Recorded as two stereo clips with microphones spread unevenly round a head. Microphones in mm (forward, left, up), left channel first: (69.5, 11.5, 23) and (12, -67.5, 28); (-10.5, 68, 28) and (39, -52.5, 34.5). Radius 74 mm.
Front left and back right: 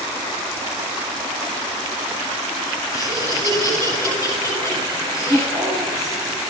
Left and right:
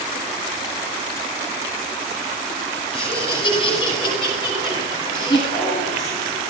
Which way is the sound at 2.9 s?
165° left.